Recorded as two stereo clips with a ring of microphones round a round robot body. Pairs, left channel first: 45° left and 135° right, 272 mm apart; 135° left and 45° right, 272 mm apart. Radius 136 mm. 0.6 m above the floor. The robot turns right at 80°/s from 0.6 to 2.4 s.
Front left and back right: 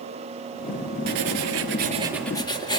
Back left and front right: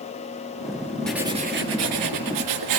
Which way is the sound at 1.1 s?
140° right.